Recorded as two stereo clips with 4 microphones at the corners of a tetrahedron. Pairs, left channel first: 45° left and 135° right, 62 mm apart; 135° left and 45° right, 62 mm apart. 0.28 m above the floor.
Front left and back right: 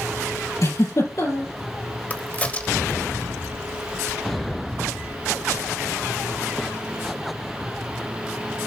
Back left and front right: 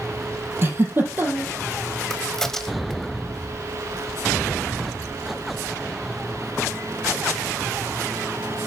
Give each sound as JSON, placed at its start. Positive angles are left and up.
{"t": 0.6, "sound": "a giggle", "azimuth_deg": 10, "distance_m": 3.5}
{"t": 2.1, "sound": "a crack", "azimuth_deg": 65, "distance_m": 1.1}